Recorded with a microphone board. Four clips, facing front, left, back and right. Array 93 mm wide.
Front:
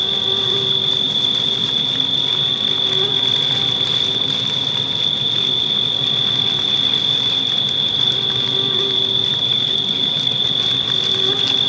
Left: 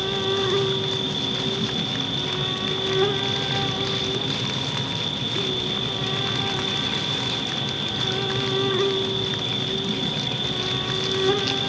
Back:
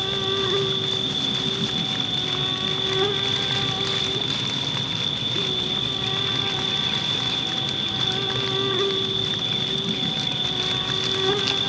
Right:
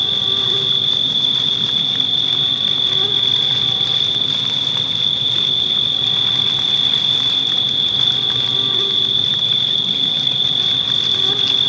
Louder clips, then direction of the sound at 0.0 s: Left 5 dB, back 1 dB; 125° left.